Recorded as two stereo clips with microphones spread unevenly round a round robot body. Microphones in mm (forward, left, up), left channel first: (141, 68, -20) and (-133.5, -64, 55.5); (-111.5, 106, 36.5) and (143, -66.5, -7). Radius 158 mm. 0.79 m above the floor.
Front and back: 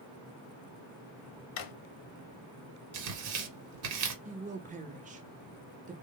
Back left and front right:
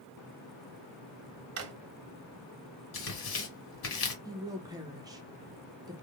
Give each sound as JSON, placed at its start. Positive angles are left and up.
{"t": 1.6, "sound": "a drawer", "azimuth_deg": 5, "distance_m": 0.8}
{"t": 2.9, "sound": "tearing paper", "azimuth_deg": -170, "distance_m": 1.4}
{"t": 4.2, "sound": "a woman speaking", "azimuth_deg": -85, "distance_m": 0.9}